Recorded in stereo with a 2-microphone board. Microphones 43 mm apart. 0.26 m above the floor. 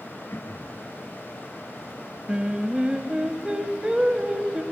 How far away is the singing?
About 1.1 m.